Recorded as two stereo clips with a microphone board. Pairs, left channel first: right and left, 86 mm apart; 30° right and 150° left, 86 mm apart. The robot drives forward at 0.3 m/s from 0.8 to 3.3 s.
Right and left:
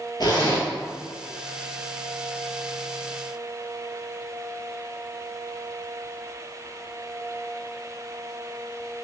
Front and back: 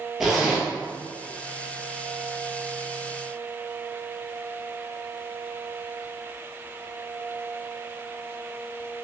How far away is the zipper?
About 1.1 m.